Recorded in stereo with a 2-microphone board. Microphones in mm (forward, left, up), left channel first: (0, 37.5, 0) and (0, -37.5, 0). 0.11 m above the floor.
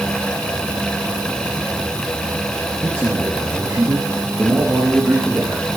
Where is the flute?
No flute in this recording.